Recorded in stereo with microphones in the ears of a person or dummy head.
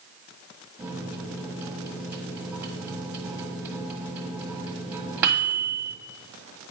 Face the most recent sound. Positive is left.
turn(degrees=-15)  # may be behind; listen again after turning